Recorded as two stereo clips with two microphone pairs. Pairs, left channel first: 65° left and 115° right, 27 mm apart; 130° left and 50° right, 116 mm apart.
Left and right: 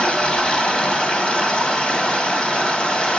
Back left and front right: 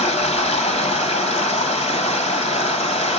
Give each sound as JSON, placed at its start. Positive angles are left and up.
{"t": 0.0, "sound": "running water", "azimuth_deg": 115, "distance_m": 2.0}